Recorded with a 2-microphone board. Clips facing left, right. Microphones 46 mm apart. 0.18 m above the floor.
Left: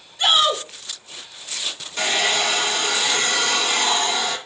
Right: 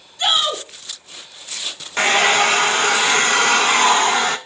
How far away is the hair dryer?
About 0.7 m.